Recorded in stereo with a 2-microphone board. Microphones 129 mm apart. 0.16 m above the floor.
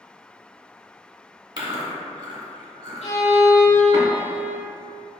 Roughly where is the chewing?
Right.